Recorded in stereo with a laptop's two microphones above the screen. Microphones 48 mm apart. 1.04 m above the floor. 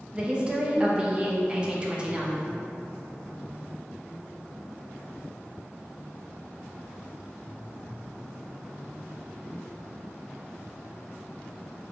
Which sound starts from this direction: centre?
A woman speaking, at 0.1 s.